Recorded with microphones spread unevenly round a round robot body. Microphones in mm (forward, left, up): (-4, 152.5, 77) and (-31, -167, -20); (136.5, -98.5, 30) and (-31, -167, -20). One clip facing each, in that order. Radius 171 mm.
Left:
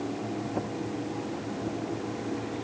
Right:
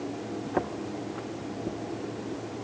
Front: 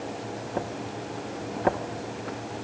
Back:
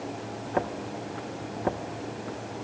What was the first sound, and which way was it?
Only background noise.